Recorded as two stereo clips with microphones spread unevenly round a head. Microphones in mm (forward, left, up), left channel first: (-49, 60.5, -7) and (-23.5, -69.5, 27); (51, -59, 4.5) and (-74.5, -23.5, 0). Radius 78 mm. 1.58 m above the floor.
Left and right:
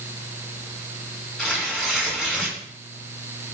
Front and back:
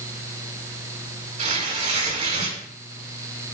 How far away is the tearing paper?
About 4.5 m.